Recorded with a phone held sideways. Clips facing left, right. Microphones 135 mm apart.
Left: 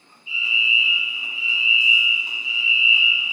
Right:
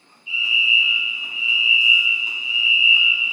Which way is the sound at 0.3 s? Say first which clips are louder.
Right 1 dB; 70° right (ahead or behind).